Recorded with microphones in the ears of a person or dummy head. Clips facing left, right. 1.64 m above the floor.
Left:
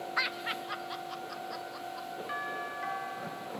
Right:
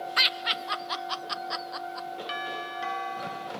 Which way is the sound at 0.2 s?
45° right (ahead or behind).